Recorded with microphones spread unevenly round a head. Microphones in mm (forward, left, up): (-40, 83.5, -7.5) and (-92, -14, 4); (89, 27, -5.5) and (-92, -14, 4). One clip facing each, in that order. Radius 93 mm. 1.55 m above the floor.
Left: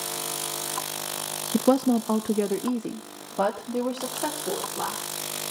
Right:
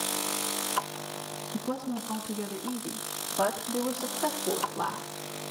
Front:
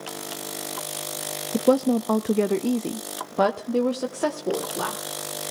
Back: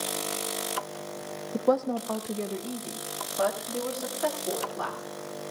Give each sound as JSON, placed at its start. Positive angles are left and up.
{"t": 1.5, "sound": "a woman speaking", "azimuth_deg": 75, "distance_m": 0.7}